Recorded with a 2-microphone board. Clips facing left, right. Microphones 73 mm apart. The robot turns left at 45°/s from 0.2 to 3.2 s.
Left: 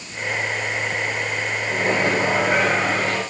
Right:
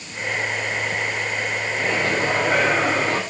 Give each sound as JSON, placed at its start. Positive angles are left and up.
{"t": 1.7, "sound": "a microwave", "azimuth_deg": 45, "distance_m": 10.0}